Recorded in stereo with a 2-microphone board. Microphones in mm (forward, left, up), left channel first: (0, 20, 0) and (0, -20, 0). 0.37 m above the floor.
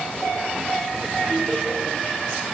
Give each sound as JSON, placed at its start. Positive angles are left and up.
{"t": 1.3, "sound": "laughter", "side_deg": -35, "distance_m": 4.5}